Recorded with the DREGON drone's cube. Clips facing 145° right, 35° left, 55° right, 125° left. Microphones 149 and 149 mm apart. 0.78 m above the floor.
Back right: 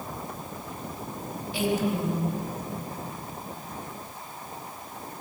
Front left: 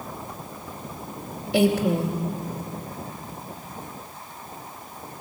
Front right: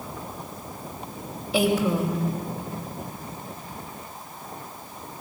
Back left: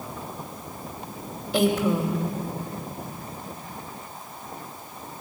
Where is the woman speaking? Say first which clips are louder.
Front left 6 dB, even; 35° left, 2.5 m.